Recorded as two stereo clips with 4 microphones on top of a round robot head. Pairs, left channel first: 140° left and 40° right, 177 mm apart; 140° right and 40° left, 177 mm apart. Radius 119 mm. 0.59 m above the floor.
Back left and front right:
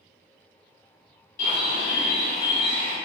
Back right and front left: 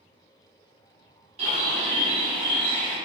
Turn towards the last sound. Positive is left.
turn(degrees=95)